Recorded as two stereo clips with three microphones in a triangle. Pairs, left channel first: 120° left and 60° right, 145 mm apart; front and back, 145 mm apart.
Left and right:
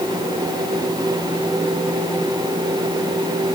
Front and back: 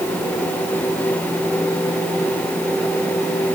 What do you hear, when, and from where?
Only background noise.